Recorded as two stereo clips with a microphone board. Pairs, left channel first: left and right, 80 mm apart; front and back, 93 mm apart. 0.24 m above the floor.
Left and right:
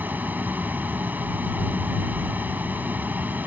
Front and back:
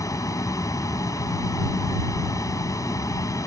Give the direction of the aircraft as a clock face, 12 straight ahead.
1 o'clock.